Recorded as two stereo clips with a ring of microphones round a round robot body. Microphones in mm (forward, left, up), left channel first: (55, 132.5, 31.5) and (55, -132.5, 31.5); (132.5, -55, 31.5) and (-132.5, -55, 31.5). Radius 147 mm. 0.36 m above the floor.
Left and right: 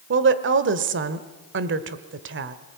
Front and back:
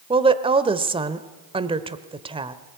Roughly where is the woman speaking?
Behind right.